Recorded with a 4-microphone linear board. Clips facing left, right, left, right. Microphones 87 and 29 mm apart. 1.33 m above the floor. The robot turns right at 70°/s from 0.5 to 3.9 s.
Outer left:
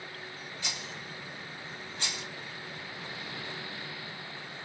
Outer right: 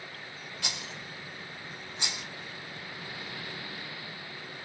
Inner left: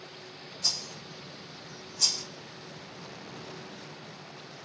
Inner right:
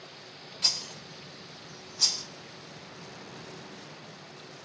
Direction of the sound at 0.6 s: 65° right (ahead or behind).